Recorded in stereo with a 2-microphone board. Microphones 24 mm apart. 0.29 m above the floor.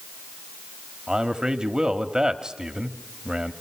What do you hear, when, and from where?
1.1 s a man speaking: 35° right (ahead or behind), 1.3 m